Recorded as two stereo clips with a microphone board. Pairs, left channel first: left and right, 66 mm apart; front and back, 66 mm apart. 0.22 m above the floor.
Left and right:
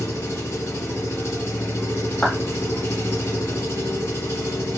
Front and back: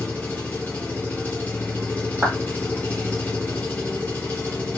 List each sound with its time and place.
0.0 s an engine running: 55° left, 1.7 m
2.2 s a clap: 150° left, 1.6 m